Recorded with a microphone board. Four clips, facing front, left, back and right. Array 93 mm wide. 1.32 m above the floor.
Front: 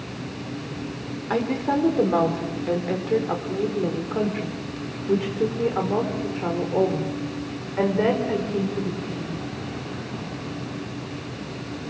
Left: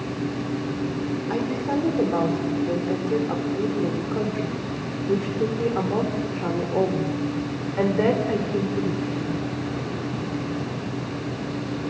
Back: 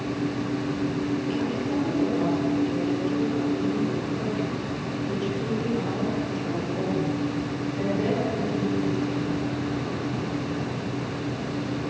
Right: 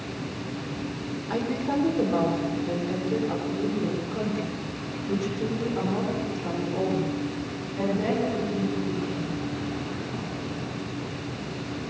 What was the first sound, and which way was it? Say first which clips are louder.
A woman speaking: even, front 3 dB; 10° left.